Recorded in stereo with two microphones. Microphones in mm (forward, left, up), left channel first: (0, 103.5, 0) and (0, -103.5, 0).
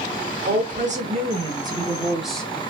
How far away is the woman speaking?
About 1.2 m.